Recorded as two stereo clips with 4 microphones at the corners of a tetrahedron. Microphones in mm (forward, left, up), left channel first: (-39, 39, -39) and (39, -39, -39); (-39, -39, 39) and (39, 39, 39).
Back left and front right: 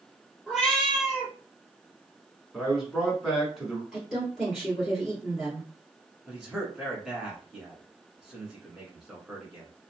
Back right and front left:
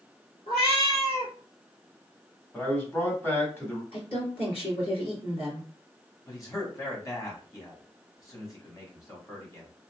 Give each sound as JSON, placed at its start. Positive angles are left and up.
{"t": 0.5, "sound": "a cat meowing", "azimuth_deg": -130, "distance_m": 1.7}
{"t": 2.5, "sound": "a man speaking", "azimuth_deg": -130, "distance_m": 1.1}
{"t": 3.9, "sound": "a woman speaking", "azimuth_deg": -125, "distance_m": 1.9}
{"t": 6.3, "sound": "a man speaking", "azimuth_deg": -125, "distance_m": 1.2}